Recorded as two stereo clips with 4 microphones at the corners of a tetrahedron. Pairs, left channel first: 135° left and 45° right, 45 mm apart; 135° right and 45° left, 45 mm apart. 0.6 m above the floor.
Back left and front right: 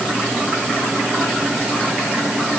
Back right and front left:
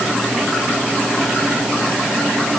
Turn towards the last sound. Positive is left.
No sound to turn to.